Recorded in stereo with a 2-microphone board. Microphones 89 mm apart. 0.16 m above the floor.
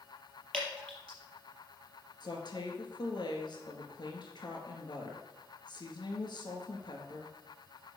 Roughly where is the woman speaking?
Left.